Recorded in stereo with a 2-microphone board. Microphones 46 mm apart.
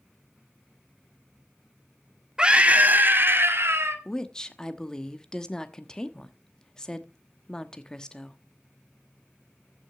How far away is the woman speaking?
About 1.0 m.